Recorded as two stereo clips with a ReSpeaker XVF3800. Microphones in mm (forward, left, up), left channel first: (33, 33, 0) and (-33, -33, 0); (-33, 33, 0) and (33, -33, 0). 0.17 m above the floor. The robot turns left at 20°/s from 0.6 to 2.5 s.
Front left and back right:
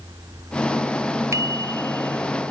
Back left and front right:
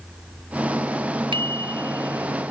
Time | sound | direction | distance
1.3 | a bicycle bell | 75° right | ?